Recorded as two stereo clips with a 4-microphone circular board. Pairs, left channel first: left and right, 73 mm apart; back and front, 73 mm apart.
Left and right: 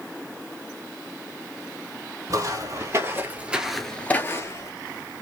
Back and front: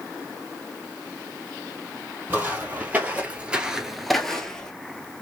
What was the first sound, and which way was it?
Footsteps, 65° right.